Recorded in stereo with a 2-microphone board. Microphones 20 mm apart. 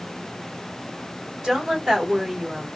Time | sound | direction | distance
1.4 | a woman speaking | 30° right (ahead or behind) | 2.5 m